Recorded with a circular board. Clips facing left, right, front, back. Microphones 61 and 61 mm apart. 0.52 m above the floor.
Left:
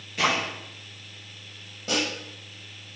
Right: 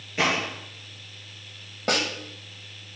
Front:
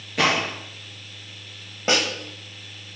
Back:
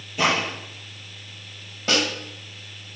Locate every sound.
0.2 s a gunshot: 25° right, 3.5 m
1.9 s a snare drum: 65° right, 1.8 m